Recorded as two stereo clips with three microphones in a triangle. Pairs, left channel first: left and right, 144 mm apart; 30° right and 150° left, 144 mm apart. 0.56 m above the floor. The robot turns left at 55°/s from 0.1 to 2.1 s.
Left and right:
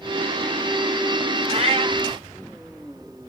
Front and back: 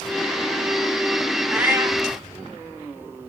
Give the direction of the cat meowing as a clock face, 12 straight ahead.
4 o'clock.